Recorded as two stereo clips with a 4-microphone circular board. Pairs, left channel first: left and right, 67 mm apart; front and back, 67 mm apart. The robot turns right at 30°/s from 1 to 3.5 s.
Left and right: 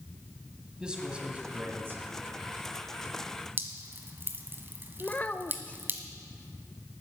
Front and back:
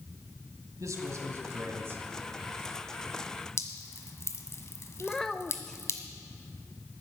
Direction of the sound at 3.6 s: 40° right.